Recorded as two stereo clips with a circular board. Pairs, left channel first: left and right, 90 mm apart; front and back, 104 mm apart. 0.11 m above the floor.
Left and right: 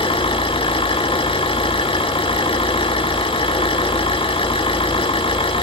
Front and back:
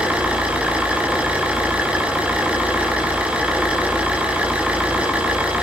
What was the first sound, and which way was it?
An engine running, 100° left.